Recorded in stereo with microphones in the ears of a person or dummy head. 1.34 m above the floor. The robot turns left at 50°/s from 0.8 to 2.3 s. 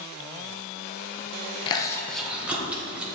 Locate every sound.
1.7 s chewing: 20° left (ahead or behind), 0.8 m; by 3.1 s 5° right (ahead or behind), 0.8 m